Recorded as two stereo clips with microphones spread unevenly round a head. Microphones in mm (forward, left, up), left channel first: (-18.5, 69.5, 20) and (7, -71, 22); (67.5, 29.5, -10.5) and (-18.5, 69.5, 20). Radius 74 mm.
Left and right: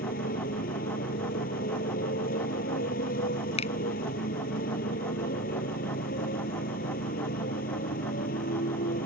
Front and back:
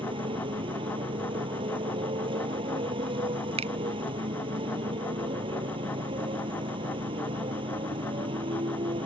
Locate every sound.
0.0 s a motorcycle: 130° left
3.6 s a finger snap: 150° left